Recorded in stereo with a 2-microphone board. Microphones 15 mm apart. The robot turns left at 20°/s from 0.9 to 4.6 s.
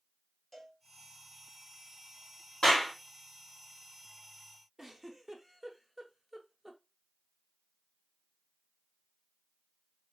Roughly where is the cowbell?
Centre.